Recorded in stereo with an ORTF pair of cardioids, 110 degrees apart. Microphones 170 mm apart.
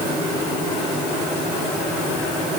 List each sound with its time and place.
Only background noise.